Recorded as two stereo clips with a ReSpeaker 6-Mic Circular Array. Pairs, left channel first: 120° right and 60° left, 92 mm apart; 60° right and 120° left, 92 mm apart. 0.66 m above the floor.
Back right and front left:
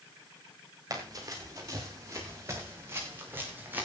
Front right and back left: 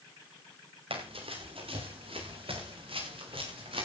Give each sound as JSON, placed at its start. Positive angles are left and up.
{"t": 0.9, "sound": "running footsteps", "azimuth_deg": 110, "distance_m": 8.0}